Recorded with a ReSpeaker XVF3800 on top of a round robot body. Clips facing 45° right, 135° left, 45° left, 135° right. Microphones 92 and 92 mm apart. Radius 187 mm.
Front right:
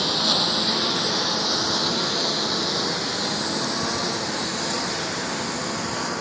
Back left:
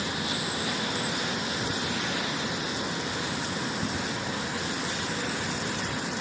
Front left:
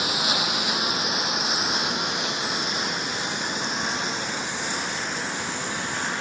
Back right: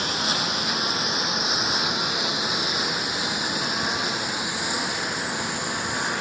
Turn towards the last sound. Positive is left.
turn(degrees=-55)